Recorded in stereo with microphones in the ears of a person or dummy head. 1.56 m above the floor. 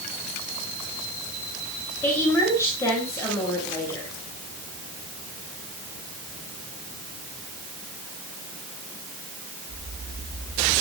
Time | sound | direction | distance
2.0 | a woman speaking | 10° left (ahead or behind) | 9.5 m